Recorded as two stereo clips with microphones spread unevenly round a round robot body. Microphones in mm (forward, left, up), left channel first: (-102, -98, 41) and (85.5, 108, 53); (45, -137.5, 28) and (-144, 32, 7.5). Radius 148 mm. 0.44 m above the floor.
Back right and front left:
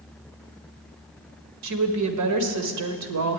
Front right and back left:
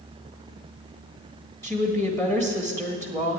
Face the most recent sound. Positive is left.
turn(degrees=40)